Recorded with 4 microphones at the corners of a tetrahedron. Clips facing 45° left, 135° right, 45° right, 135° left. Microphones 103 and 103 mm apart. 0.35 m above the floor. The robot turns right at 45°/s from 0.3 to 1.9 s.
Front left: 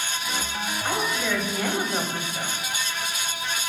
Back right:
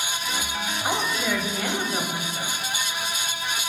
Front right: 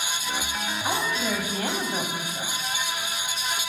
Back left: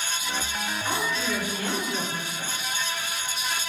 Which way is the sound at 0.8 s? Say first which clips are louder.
Back right 1 dB, front right 2 dB; 75° right.